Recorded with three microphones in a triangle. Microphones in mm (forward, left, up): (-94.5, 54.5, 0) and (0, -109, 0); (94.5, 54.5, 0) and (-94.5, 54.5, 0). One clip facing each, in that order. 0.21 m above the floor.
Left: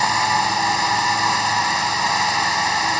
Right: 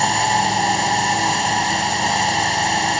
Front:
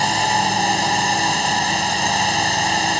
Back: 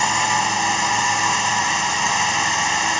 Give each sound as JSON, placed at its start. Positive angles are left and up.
{"t": 0.0, "sound": "a drone", "azimuth_deg": -20}